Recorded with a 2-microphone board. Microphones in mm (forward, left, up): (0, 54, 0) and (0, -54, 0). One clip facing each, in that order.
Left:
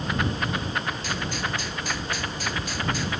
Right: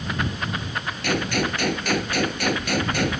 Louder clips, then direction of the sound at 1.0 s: Right 6 dB; 65° right (ahead or behind).